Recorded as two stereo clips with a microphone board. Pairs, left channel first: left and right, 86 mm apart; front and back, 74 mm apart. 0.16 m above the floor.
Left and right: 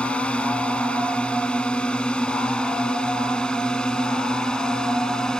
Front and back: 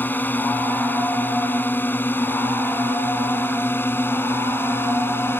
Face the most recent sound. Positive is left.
turn(degrees=15)